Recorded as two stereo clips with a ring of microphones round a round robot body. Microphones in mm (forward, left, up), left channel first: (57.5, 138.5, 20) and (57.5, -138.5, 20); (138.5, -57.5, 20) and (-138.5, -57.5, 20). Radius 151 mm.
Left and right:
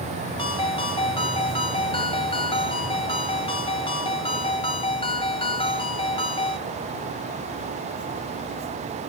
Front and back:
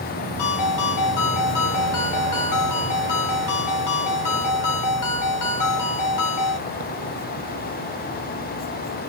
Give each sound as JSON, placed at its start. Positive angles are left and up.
{"t": 0.4, "sound": "a ringtone", "azimuth_deg": 20, "distance_m": 1.7}